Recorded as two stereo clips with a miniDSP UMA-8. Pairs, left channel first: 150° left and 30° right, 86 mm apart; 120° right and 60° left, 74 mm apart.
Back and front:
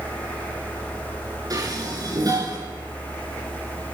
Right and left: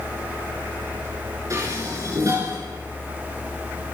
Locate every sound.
1.5 s dishes clattering: 15° left, 8.5 m